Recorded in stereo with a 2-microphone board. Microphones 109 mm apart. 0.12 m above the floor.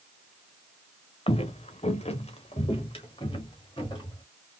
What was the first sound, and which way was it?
Footsteps, 65° left (ahead or behind).